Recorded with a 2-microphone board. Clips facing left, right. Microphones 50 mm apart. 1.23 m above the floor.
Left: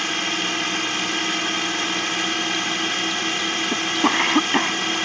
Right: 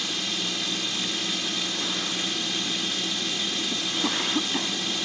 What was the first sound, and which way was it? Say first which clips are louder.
A drone: left 7 dB; 45° left (ahead or behind).